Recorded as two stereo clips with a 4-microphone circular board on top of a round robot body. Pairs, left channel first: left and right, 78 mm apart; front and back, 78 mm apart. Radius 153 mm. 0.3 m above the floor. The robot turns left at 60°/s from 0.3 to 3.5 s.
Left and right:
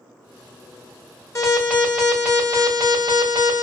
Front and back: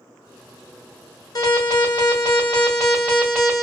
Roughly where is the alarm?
Ahead left.